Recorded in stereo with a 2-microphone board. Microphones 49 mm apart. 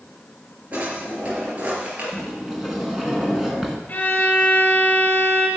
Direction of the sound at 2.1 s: 10° right (ahead or behind).